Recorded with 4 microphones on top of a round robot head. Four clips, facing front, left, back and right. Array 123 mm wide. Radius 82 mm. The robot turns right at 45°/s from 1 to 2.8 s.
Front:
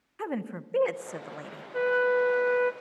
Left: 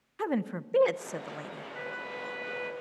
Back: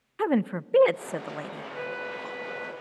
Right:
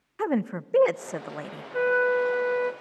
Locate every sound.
0.2 s a woman speaking: 145° right, 0.6 m; by 1.6 s 120° right, 0.6 m
1.7 s a flute: 70° right, 0.7 m; by 2.7 s 25° right, 0.7 m